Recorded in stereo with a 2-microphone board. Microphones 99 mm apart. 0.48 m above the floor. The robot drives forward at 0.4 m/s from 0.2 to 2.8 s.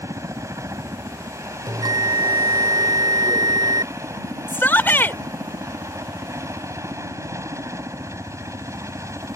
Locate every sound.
0.0 s a helicopter: 30° right (ahead or behind)
1.7 s a bell: 45° right (ahead or behind); by 3.9 s 50° right (ahead or behind)
4.5 s a shout: 20° left (ahead or behind)